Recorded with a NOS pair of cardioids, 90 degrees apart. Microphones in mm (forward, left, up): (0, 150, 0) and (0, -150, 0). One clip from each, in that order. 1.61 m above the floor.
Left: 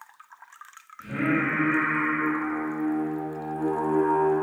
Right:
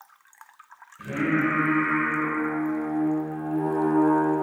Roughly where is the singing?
Ahead right.